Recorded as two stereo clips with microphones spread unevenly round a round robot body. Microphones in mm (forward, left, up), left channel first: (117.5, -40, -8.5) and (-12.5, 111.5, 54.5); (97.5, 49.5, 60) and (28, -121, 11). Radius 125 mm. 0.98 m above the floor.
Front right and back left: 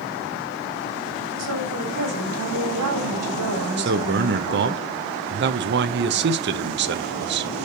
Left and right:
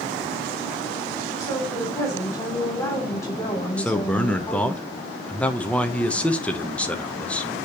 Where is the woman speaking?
145° left, 3 m.